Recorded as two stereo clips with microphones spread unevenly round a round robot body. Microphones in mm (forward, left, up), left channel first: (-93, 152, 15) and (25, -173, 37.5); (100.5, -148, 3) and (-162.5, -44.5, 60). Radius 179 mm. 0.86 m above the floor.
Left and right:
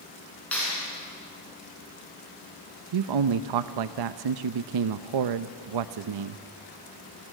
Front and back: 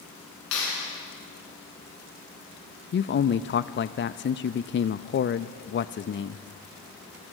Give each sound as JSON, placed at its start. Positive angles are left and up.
{"t": 0.5, "sound": "a clap", "azimuth_deg": 25, "distance_m": 8.0}
{"t": 2.9, "sound": "a man speaking", "azimuth_deg": -65, "distance_m": 0.6}